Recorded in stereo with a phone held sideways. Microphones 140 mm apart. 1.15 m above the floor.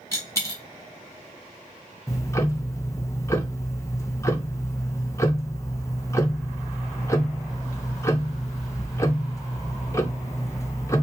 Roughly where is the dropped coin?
Left.